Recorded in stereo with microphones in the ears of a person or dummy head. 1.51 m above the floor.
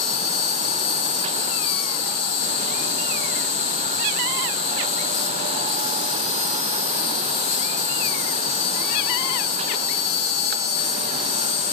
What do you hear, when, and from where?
0.0 s an insect: 80° left, 0.9 m